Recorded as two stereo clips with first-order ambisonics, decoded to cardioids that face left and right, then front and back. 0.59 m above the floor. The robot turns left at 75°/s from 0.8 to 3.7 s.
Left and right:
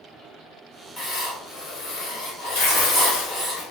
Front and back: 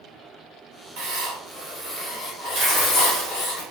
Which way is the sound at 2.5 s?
105° left.